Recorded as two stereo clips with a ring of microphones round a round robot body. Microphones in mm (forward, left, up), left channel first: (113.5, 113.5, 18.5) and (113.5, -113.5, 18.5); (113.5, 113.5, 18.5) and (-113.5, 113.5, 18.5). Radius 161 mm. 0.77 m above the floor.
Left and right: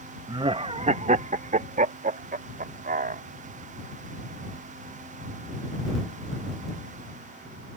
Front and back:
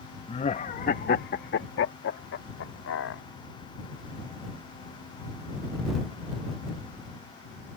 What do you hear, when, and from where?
0.3 s laughter: 35° right; by 3.2 s 40° right